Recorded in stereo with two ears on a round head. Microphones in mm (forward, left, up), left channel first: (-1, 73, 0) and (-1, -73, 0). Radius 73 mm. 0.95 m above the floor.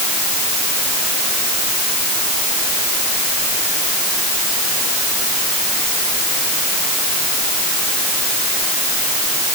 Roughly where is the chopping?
I don't hear chopping.